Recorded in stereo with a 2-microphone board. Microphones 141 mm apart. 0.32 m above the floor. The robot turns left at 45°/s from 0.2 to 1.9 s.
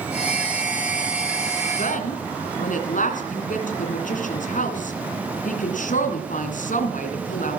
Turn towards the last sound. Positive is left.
turn(degrees=65)  # may be behind; listen again after turning